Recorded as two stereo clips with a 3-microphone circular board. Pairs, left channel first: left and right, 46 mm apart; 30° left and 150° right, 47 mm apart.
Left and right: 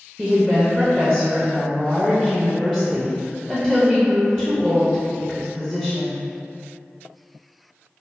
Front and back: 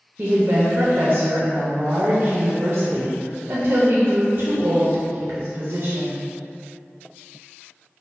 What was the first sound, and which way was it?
A woman speaking, 155° right.